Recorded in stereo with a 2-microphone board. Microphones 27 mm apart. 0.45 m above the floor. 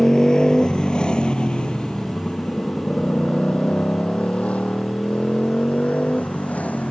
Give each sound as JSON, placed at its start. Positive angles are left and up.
{"t": 0.0, "sound": "a motorcycle", "side_deg": 25}